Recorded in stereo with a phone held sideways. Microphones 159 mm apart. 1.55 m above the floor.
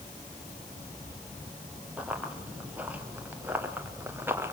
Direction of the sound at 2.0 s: 10° right (ahead or behind).